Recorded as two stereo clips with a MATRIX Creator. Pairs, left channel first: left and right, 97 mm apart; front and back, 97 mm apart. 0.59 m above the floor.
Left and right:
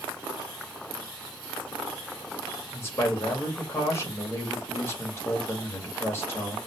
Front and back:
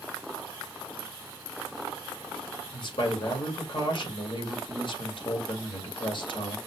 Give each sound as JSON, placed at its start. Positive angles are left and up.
{"t": 2.7, "sound": "a man speaking", "azimuth_deg": 30, "distance_m": 2.5}